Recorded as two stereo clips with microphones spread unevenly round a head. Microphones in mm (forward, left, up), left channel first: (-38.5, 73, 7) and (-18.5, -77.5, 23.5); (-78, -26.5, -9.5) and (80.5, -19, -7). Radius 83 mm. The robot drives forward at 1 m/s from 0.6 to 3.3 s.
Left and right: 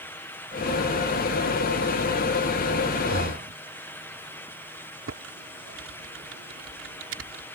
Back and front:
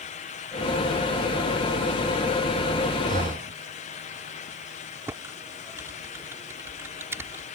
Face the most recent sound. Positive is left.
turn(degrees=-75)